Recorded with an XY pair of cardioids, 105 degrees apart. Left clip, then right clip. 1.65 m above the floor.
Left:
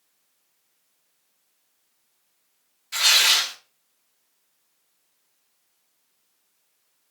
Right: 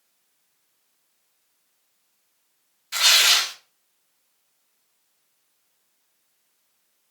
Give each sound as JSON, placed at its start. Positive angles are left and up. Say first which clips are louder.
{"t": 2.9, "sound": "tearing paper", "louder": "right 1 dB", "azimuth_deg": -15, "distance_m": 1.0}